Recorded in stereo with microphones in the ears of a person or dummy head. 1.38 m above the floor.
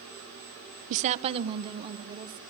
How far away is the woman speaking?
About 0.5 m.